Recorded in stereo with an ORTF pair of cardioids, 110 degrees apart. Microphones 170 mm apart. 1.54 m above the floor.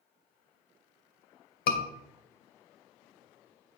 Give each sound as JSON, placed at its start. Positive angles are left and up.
{"t": 1.7, "sound": "a scream", "azimuth_deg": 70, "distance_m": 1.9}